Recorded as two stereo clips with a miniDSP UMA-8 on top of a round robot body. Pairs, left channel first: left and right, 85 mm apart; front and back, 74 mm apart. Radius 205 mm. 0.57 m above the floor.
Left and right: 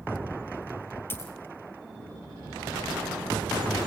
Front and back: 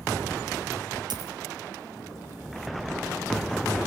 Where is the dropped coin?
155° left, 1.9 m.